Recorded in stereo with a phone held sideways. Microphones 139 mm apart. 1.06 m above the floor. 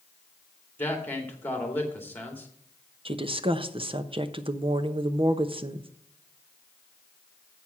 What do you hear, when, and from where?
0.8 s a man speaking: 15° left (ahead or behind), 2.5 m
3.0 s a woman speaking: 40° right (ahead or behind), 0.8 m